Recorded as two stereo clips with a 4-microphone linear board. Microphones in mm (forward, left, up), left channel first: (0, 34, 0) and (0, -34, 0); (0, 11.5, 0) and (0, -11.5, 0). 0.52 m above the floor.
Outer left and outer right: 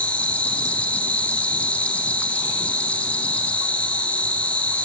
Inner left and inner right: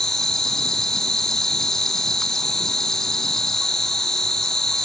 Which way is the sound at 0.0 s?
20° left (ahead or behind).